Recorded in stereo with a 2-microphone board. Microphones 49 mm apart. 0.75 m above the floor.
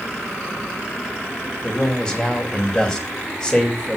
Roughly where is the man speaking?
Centre.